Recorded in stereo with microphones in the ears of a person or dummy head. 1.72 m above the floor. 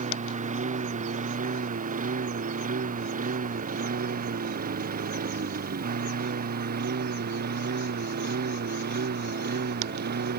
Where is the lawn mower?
40° right (ahead or behind); by 10.4 s 55° right (ahead or behind).